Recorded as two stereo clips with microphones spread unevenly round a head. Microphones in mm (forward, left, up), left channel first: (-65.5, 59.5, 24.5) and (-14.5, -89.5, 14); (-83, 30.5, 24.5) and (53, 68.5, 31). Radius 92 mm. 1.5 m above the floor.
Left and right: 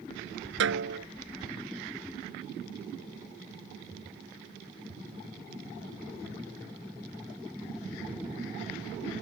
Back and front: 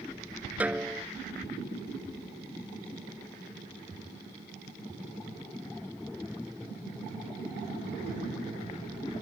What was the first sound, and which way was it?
A snare drum, 65° right.